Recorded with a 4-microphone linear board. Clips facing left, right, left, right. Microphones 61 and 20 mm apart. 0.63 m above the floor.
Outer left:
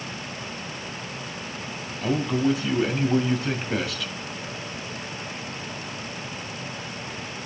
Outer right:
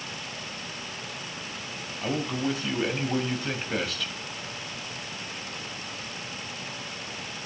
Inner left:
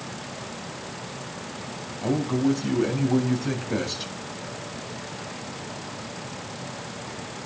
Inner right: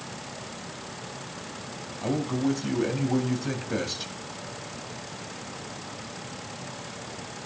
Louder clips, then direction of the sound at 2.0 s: Outer left 5 dB, inner left 3 dB; centre (ahead or behind).